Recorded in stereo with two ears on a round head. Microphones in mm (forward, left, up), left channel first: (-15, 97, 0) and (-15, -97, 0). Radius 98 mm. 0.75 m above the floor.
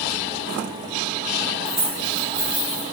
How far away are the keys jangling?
About 3 m.